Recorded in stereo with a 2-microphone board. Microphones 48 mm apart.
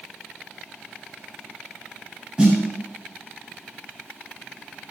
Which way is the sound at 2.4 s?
15° right (ahead or behind).